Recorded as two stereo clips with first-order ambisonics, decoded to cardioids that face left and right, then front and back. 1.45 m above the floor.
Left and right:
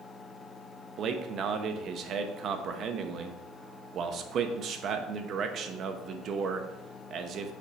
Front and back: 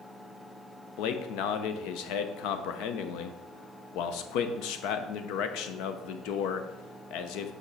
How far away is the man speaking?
About 0.8 m.